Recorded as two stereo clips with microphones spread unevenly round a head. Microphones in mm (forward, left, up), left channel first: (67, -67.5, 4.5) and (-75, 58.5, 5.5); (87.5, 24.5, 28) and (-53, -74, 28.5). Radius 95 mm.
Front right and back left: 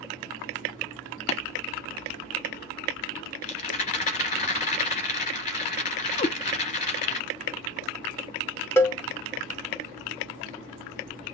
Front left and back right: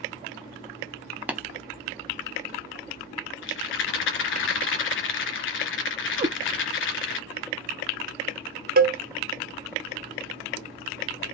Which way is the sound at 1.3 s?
70° right.